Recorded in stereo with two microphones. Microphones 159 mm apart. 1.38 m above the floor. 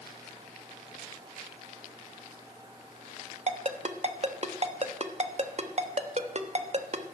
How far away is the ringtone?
About 1.1 m.